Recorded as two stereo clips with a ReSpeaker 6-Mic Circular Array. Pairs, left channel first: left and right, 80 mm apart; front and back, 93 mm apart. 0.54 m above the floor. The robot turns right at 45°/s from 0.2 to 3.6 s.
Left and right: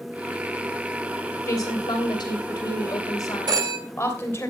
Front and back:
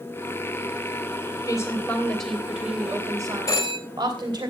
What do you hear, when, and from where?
1.5 s a woman speaking: 50° left, 3 m; by 4.5 s 145° left, 3 m
3.5 s a phone ringing: 55° right, 1.8 m; by 3.8 s 45° right, 1.8 m